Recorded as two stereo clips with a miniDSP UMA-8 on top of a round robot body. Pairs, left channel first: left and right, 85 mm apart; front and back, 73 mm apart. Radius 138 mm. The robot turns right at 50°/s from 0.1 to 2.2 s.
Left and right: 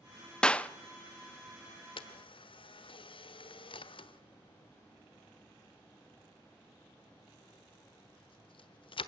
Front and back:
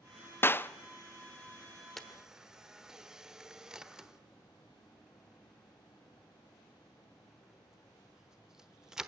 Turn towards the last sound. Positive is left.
turn(degrees=100)